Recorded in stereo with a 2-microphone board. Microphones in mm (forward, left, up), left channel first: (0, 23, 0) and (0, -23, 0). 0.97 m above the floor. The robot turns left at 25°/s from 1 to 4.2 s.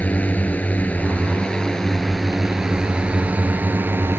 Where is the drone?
30° left; by 4.2 s 50° right.